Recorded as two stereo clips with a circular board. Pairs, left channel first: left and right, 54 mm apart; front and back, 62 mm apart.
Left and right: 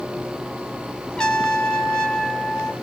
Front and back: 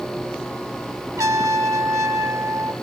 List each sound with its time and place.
1.2 s a trumpet: 165° left, 1.5 m